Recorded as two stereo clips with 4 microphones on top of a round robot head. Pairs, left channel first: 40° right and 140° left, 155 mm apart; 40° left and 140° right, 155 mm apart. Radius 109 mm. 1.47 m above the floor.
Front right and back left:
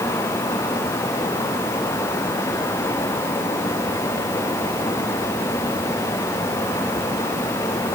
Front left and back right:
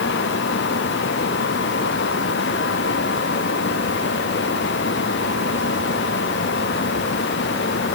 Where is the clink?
No clink in this recording.